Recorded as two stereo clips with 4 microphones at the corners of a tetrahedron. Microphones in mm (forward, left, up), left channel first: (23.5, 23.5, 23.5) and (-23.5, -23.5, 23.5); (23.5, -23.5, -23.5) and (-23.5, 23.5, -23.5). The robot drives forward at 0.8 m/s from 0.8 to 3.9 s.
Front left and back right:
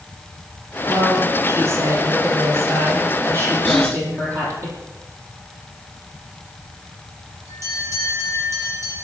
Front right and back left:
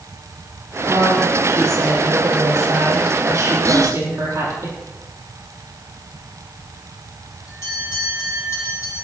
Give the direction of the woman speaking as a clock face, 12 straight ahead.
6 o'clock.